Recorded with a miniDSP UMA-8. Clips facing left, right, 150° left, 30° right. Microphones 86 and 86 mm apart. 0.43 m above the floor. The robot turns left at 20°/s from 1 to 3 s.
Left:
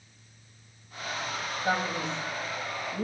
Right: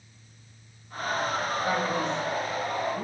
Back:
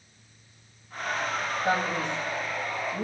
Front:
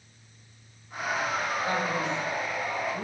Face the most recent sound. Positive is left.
turn(degrees=125)